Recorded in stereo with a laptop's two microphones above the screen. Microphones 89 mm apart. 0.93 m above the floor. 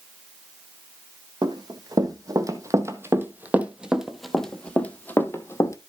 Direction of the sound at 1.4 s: 55° right (ahead or behind).